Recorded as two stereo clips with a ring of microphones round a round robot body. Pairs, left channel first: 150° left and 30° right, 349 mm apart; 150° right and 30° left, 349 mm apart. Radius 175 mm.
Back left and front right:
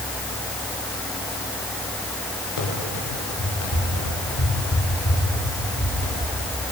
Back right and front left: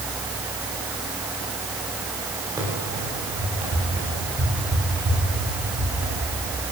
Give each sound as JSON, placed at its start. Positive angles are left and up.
{"t": 2.6, "sound": "running footsteps", "azimuth_deg": 110, "distance_m": 8.5}